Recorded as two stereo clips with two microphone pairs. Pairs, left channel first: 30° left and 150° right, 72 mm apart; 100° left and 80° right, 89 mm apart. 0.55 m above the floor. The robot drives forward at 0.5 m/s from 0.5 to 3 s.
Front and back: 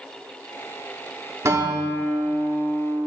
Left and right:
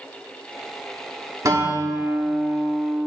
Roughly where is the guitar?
Behind right.